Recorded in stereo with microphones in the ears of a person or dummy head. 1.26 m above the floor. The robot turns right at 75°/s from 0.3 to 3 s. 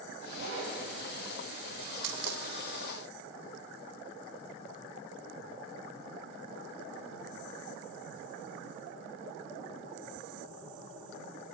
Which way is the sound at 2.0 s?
65° right (ahead or behind).